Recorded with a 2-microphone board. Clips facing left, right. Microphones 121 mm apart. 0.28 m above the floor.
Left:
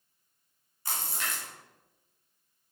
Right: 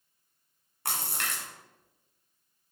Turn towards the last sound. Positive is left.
turn(degrees=-70)  # may be behind; listen again after turning